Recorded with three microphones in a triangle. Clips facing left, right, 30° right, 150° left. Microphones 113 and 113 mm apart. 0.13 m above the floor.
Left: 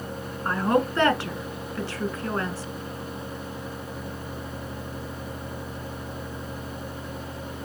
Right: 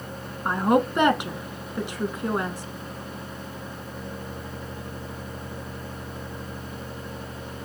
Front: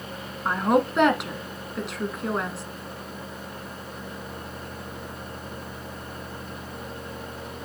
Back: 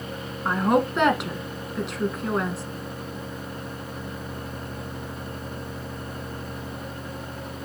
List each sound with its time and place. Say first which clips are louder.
0.5 s a woman speaking: right 2 dB, even; 120° right, 1.1 m